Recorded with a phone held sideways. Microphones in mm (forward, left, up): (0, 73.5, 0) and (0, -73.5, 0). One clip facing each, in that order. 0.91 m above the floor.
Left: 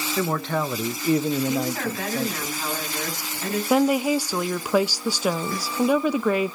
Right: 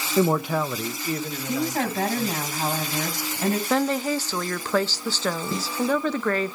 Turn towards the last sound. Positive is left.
turn(degrees=-25)  # may be behind; listen again after turning